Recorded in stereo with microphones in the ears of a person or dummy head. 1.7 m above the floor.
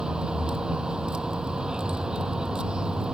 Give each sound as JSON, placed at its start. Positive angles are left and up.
{"t": 0.0, "sound": "a vehicle", "side_deg": -5}